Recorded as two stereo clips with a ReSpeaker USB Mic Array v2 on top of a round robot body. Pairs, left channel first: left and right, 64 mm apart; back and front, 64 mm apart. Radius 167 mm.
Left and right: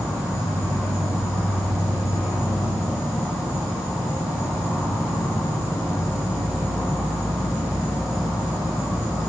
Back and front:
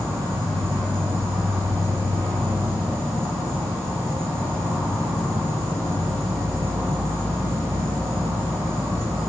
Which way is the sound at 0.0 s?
50° left.